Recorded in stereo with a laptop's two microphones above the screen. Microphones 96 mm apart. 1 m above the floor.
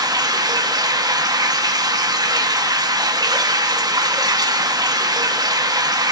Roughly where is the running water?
Right.